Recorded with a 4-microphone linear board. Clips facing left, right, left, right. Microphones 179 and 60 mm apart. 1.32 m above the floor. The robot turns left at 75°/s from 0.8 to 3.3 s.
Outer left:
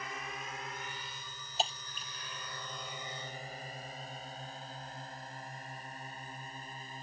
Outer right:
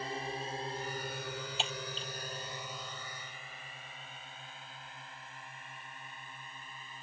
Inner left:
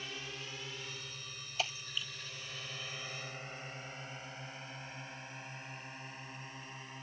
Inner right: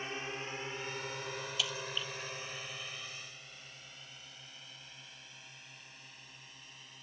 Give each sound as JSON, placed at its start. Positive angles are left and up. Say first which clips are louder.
{"t": 0.0, "sound": "a drone", "louder": "outer right 5 dB, inner right 5 dB", "side_deg": -30}
{"t": 1.6, "sound": "breaking glass", "louder": "outer left 1 dB, inner left 2 dB", "side_deg": 40}